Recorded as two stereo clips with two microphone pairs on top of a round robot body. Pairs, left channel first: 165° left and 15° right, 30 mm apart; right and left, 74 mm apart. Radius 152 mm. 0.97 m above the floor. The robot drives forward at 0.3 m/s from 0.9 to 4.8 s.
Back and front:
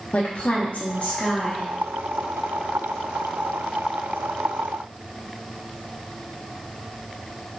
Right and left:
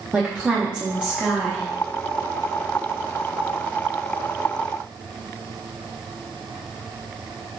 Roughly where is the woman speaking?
Behind.